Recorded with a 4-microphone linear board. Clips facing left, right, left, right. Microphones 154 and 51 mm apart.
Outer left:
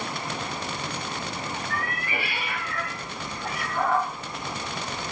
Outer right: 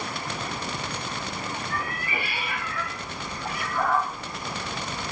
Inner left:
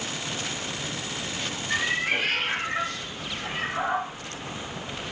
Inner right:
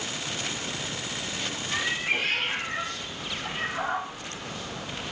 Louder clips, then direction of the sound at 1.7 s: Even, inner left 3 dB; 85° left.